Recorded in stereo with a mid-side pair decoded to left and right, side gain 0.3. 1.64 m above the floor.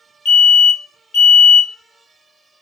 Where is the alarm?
70° left, 1.0 m.